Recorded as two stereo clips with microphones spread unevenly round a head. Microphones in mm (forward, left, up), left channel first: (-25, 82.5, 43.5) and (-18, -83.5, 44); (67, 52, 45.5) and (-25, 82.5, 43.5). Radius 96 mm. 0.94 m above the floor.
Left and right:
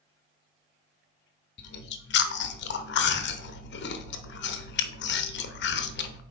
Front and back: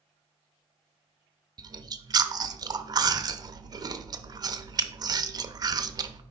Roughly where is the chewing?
Left.